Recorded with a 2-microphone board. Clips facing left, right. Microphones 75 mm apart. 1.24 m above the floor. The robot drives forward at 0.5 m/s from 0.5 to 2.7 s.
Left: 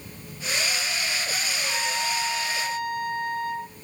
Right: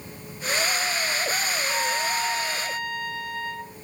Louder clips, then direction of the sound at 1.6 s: Right 1 dB; 45° left (ahead or behind).